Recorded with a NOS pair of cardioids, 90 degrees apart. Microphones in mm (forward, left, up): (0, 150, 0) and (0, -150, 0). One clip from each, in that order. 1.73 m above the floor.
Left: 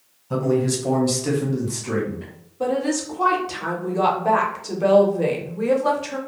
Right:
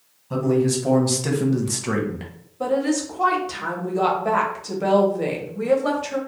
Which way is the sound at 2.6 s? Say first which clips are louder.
Right 1 dB; straight ahead.